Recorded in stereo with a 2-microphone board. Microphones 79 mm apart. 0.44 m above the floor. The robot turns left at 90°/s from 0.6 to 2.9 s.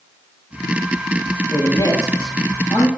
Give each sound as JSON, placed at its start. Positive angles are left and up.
{"t": 1.5, "sound": "a man speaking", "azimuth_deg": 155, "distance_m": 9.0}